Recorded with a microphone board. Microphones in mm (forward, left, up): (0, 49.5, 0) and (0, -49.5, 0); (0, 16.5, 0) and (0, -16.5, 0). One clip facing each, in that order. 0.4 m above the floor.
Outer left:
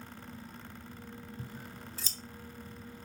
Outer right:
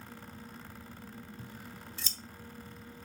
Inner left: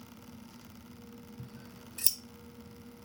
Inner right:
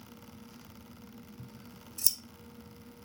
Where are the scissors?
40° left (ahead or behind), 0.8 m.